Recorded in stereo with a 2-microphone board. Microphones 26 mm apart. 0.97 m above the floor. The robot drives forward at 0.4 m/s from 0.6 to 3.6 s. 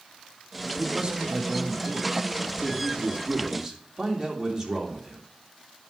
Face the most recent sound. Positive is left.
turn(degrees=-20)  # may be behind; listen again after turning